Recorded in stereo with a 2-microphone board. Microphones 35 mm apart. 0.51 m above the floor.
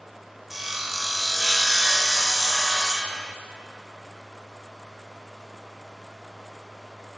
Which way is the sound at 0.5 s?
5° right (ahead or behind).